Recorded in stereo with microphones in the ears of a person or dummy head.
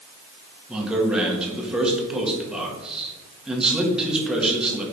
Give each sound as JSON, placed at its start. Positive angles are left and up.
{"t": 0.7, "sound": "a man speaking", "side_deg": -5, "distance_m": 1.8}